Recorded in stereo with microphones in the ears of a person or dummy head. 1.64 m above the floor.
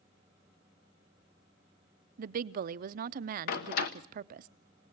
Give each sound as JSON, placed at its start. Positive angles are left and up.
{"t": 2.2, "sound": "a woman speaking", "side_deg": -45, "distance_m": 0.8}
{"t": 3.5, "sound": "a door slam", "side_deg": 50, "distance_m": 1.2}